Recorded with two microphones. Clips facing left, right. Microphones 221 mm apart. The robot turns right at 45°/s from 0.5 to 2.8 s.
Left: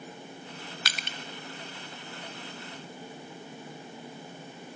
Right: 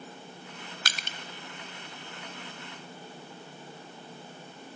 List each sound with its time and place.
0.8 s crushing: 45° right (ahead or behind), 0.7 m; by 1.2 s 40° right (ahead or behind), 0.7 m